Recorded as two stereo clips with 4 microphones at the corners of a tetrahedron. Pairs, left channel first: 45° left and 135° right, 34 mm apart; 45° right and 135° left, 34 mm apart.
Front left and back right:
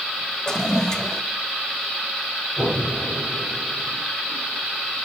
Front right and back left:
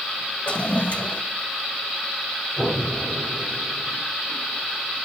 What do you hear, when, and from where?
0.5 s a toilet flushing: 20° right, 0.7 m
2.6 s an explosion: 145° right, 7 m